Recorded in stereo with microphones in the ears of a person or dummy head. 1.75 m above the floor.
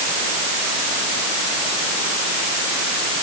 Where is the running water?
No running water in this recording.